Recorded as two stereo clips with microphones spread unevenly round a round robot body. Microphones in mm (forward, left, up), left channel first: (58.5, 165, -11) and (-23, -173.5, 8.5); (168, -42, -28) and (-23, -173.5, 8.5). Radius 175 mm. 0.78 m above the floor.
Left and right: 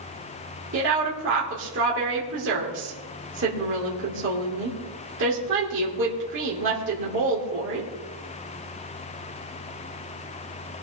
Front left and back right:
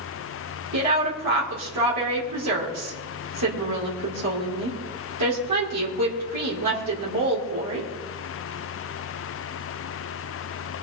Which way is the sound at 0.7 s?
160° right.